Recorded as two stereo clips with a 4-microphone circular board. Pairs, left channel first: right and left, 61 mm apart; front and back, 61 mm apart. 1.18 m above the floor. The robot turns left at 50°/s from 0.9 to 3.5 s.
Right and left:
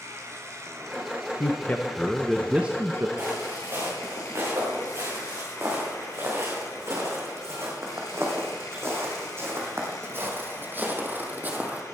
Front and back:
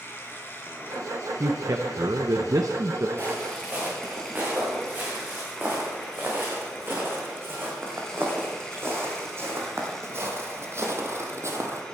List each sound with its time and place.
0.0 s running water: 50° left, 3 m; by 11.9 s 80° right, 3 m
1.4 s a man speaking: 135° right, 0.9 m; by 3.1 s 140° left, 0.9 m
3.2 s footsteps: 140° left, 7 m; by 11.8 s 150° left, 2 m